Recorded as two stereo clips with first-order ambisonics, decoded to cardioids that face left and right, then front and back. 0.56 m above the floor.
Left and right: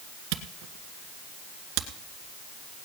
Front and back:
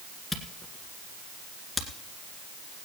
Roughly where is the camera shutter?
Right.